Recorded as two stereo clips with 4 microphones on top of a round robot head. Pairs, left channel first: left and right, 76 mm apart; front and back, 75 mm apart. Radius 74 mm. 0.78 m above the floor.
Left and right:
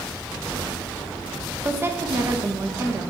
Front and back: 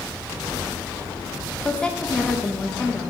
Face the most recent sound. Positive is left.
turn(degrees=-70)